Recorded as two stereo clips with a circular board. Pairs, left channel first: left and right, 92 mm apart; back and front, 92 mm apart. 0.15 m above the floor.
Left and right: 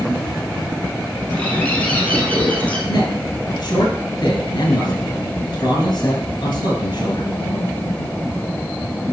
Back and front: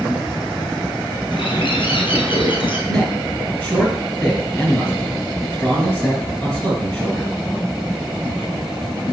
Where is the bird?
165° left, 1.5 m.